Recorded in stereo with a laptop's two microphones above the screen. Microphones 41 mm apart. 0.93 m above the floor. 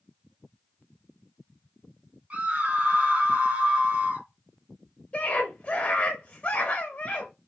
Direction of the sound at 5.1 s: 35° left (ahead or behind).